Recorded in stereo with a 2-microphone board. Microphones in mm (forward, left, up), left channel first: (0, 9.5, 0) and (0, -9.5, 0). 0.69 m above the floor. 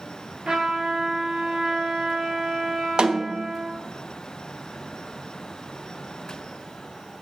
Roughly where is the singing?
No singing in this recording.